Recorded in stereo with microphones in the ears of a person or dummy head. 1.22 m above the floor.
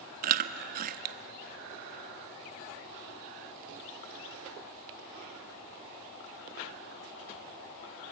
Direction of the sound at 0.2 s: 45° right (ahead or behind).